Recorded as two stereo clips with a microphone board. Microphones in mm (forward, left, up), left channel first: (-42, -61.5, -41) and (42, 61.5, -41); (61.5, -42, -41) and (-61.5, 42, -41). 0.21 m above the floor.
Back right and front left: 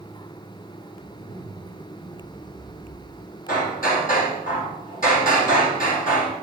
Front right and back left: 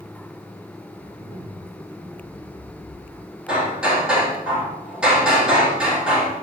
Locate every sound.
1.0 s a zipper: 160° right, 5 m
3.5 s hammering: 130° right, 4.5 m